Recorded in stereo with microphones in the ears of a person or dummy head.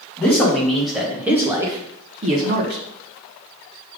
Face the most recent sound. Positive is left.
turn(degrees=-55)  # may be behind; listen again after turning